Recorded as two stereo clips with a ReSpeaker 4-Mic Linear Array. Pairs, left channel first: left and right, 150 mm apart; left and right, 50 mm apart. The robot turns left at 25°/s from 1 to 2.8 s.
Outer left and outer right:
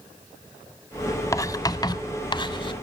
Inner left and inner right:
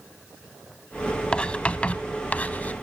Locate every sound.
1.3 s writing: 20° left (ahead or behind), 0.7 m; by 2.7 s 30° left (ahead or behind), 0.7 m